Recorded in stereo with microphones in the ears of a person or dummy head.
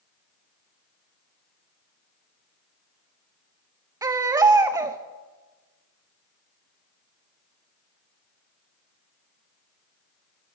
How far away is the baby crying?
About 0.6 m.